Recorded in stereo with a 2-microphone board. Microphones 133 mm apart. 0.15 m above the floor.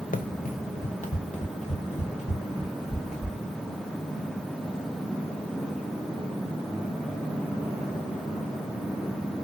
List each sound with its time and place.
0.1 s running footsteps: 80° left, 0.6 m; by 3.4 s 55° left (ahead or behind), 2.5 m